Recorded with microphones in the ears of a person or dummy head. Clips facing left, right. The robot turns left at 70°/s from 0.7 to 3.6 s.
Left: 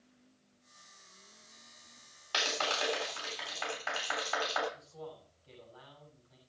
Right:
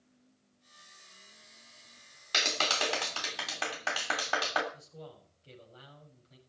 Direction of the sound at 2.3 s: 30° right.